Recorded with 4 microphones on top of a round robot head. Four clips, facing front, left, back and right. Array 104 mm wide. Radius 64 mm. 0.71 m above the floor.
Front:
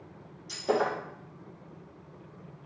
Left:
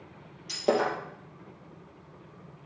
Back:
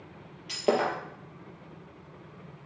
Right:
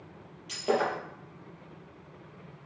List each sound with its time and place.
0.5 s breaking glass: 155° left, 3 m